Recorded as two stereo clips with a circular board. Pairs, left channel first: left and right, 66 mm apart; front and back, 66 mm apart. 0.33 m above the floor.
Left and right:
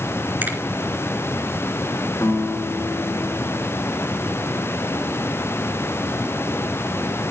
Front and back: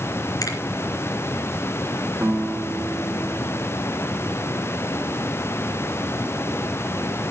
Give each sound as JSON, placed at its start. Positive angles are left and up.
{"t": 0.4, "sound": "a finger snap", "azimuth_deg": -30, "distance_m": 3.0}
{"t": 2.2, "sound": "a guitar", "azimuth_deg": 120, "distance_m": 3.5}